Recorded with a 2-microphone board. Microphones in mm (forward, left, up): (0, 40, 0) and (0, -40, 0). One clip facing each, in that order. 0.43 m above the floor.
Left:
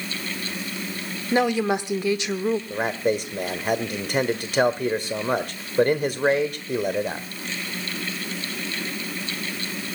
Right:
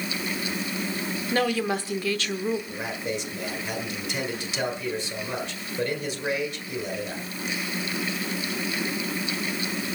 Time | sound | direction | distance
1.3 | a woman speaking | 20° left (ahead or behind) | 0.9 m
2.7 | a man speaking | 50° left (ahead or behind) | 1.6 m